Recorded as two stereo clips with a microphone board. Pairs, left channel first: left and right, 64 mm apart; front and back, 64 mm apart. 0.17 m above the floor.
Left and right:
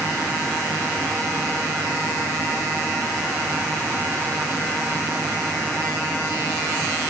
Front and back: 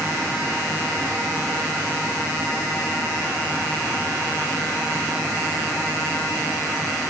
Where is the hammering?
I don't hear hammering.